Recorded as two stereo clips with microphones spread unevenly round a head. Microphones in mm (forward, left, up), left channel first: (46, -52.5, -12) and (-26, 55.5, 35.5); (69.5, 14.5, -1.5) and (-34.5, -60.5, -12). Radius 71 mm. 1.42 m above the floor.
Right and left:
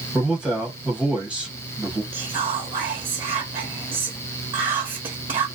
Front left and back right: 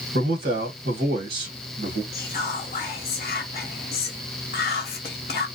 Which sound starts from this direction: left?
Whispering, at 2.1 s.